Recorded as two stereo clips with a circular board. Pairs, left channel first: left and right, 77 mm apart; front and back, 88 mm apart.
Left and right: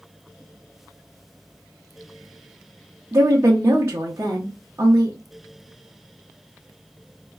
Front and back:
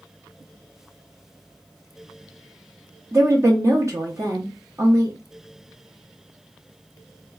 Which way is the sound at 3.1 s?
135° right.